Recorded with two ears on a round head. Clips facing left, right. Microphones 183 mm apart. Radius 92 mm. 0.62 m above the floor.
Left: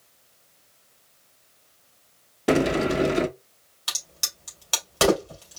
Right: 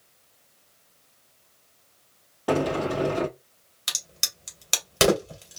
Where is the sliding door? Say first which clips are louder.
Left 3 dB; 25° left (ahead or behind), 0.5 m.